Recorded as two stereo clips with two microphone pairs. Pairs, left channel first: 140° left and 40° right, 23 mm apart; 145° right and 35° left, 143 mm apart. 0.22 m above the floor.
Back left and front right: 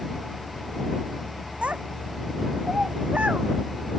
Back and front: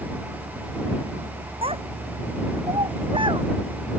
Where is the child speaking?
15° right; by 3.5 s 25° right.